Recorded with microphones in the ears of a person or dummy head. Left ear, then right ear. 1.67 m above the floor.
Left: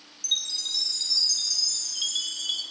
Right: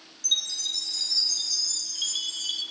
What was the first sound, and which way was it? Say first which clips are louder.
A chime: right 1 dB; 20° left (ahead or behind).